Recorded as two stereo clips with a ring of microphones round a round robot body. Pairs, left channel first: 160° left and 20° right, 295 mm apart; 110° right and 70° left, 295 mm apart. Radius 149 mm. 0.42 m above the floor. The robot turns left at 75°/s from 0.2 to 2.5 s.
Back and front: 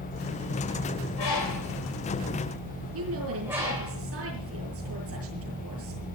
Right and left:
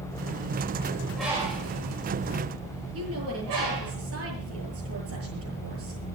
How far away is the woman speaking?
About 8.5 m.